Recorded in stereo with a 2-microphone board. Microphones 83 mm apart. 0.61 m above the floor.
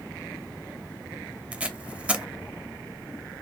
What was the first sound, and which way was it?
Tape being pulled, 15° right (ahead or behind).